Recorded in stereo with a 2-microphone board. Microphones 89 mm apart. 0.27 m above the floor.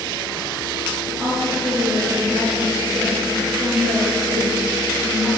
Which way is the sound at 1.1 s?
25° right (ahead or behind).